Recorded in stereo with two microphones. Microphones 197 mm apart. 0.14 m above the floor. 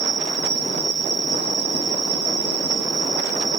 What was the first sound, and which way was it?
An insect, 65° right (ahead or behind).